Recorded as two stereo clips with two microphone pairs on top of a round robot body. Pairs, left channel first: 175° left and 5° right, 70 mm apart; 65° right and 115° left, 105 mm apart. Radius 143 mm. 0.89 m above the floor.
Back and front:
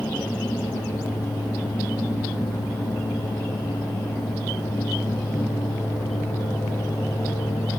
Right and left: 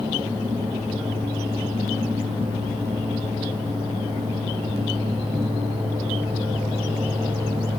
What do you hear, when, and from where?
Only background noise.